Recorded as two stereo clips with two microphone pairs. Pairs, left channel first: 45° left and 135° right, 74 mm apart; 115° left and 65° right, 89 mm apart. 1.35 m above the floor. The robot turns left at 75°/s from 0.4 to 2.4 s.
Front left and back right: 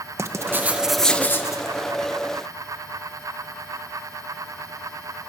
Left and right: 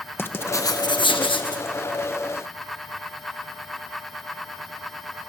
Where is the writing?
Straight behind, 1.1 m; by 1.6 s 85° left, 1.1 m.